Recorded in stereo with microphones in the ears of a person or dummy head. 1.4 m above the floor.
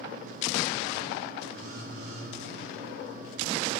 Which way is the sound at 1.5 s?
85° right.